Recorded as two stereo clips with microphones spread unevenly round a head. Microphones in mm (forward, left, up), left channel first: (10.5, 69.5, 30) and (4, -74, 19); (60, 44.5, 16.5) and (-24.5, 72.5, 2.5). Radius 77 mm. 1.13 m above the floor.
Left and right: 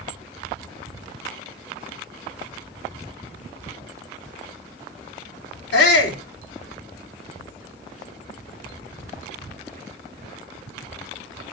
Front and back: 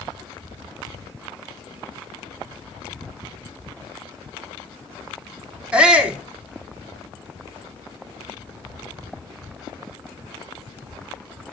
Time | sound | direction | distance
5.7 | a shout | 85° left | 4 m